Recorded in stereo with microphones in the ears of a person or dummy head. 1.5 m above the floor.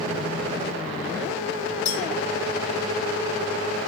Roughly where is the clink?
Left.